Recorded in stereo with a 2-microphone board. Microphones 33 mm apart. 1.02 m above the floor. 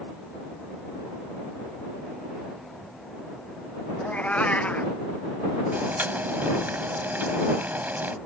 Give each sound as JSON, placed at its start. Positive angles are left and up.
{"t": 4.0, "sound": "a cat meowing", "side_deg": 45}
{"t": 5.7, "sound": "boiling", "side_deg": -65}